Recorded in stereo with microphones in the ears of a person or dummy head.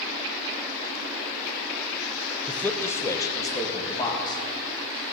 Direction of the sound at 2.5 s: 5° left (ahead or behind).